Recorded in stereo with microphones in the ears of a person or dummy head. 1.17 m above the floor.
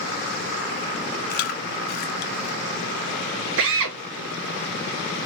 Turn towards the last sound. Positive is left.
turn(degrees=-65)  # may be behind; listen again after turning